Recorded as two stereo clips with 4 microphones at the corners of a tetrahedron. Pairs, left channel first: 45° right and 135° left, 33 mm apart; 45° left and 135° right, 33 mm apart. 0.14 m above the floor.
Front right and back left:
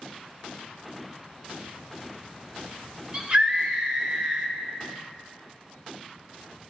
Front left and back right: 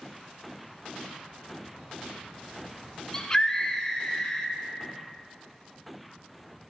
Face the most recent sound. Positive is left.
turn(degrees=105)